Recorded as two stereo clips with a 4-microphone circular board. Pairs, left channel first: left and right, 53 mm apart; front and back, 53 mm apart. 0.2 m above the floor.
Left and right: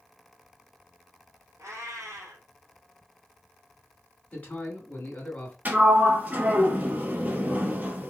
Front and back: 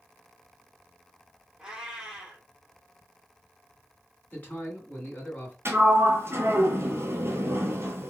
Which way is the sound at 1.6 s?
105° right.